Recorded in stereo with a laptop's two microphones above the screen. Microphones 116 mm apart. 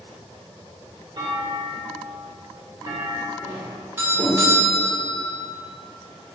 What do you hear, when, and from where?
1.2 s a clunk: 40° right (ahead or behind), 1.1 m
3.4 s a doorbell: 15° right (ahead or behind), 1.6 m